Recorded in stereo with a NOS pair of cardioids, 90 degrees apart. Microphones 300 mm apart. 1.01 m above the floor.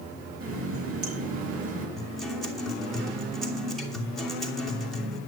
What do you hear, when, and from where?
0.4 s a running tap: 50° right, 4.5 m
2.0 s a guitar: straight ahead, 2.5 m